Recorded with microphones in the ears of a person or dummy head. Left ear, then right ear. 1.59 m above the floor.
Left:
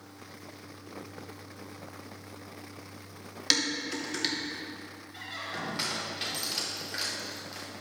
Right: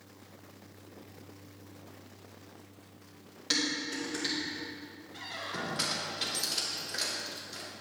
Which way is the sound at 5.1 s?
5° left (ahead or behind).